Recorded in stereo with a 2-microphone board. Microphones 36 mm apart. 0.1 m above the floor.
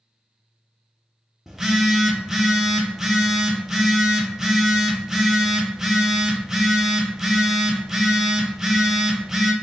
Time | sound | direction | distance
1.5 | a phone buzzing | 10° right (ahead or behind) | 0.6 m